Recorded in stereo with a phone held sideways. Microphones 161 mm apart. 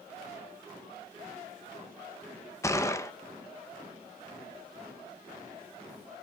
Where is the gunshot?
20° left (ahead or behind), 1.1 m.